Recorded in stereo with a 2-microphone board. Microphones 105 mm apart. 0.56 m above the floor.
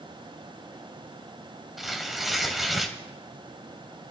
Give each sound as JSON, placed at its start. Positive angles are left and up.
{"t": 1.8, "sound": "tearing paper", "side_deg": 0, "distance_m": 1.4}